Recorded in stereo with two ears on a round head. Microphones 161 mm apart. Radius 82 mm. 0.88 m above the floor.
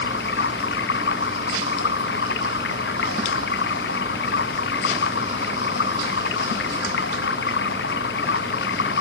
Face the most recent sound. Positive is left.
turn(degrees=60)  # may be behind; listen again after turning